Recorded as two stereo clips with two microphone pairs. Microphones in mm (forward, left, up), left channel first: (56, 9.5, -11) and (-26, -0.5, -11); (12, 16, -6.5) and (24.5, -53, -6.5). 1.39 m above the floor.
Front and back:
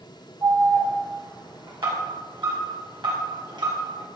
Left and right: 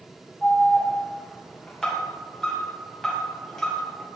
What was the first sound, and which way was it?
An alarm, straight behind.